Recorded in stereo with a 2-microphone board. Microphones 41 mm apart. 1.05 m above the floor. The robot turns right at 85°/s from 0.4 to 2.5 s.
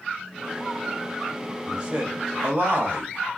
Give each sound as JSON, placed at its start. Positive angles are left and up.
{"t": 1.6, "sound": "a man speaking", "side_deg": -15, "distance_m": 1.1}